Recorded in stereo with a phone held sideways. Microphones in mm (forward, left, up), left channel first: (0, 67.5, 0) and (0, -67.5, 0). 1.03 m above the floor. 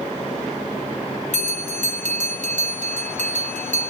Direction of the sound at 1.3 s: 70° right (ahead or behind).